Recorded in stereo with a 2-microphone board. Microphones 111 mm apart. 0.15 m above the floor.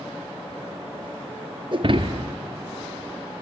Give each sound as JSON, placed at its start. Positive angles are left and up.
{"t": 1.7, "sound": "breaking glass", "side_deg": -50, "distance_m": 0.9}